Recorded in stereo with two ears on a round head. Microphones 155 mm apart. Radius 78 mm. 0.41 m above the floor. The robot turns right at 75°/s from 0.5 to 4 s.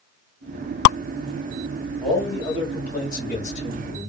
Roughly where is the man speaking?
Ahead.